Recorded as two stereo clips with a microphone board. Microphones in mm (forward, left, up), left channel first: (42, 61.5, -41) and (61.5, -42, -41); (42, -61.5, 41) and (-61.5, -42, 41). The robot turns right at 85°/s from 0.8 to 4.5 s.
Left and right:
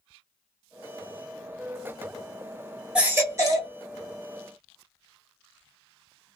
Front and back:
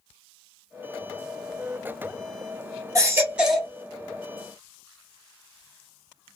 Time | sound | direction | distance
3.0 | a baby crying | 155° right | 1.1 m